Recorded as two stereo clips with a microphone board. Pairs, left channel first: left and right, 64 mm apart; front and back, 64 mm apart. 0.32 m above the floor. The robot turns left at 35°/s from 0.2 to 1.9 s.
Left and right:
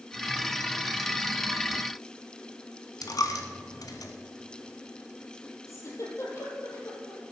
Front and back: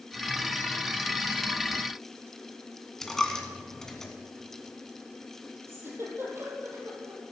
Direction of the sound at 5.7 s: 130° left.